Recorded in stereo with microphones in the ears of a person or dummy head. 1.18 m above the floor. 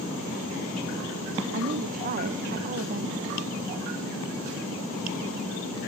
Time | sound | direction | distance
1.5 | a woman speaking | 50° right (ahead or behind) | 0.7 m